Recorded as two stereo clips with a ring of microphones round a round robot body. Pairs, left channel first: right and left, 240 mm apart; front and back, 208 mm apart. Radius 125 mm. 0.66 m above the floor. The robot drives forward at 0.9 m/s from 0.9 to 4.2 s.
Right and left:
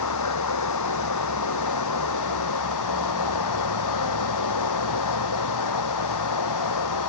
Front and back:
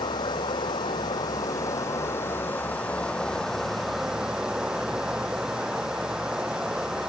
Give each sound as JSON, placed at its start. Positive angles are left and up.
{"t": 0.0, "sound": "running water", "azimuth_deg": -75}